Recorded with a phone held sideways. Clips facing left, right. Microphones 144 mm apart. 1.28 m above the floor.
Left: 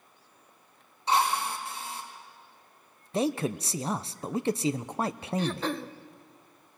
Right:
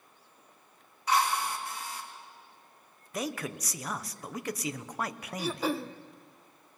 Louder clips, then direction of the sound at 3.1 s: Left 7 dB; 30° left (ahead or behind).